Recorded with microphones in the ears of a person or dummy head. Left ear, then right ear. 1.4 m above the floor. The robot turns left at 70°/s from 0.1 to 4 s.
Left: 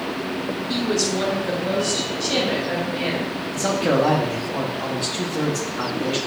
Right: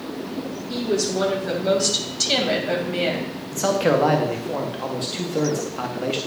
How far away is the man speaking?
About 0.8 m.